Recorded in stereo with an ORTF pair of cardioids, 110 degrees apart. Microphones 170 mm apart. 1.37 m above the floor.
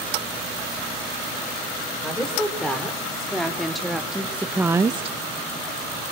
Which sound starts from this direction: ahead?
A woman speaking, at 2.0 s.